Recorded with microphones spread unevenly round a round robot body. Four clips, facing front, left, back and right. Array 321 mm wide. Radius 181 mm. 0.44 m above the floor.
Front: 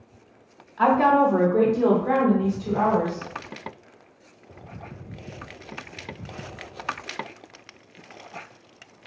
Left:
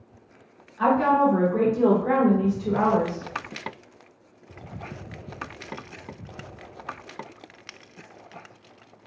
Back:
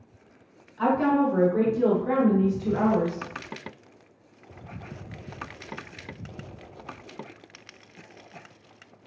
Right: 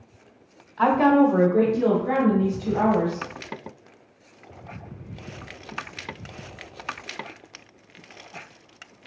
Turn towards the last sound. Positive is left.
turn(degrees=95)